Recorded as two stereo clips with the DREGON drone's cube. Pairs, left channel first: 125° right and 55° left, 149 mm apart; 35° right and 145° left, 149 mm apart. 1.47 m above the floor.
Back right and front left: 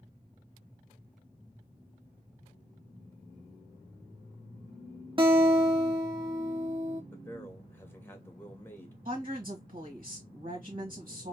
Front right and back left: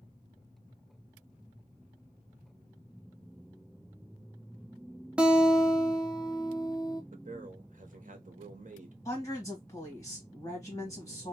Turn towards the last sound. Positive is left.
turn(degrees=35)